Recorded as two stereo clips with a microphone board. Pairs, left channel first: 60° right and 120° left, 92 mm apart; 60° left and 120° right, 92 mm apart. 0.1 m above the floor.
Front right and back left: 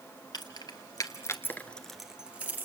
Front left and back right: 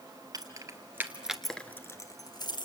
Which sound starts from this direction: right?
Keys jangling, at 0.3 s.